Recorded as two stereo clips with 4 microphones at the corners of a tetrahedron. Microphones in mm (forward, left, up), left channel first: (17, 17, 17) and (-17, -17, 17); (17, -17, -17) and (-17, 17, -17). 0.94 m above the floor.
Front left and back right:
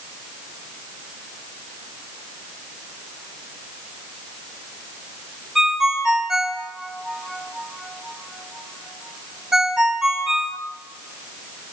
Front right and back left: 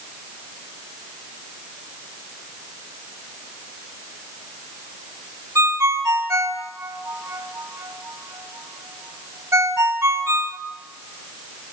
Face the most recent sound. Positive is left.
turn(degrees=145)